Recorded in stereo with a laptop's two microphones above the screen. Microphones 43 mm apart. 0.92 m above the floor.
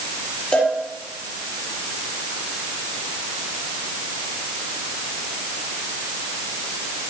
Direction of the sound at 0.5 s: 30° left (ahead or behind).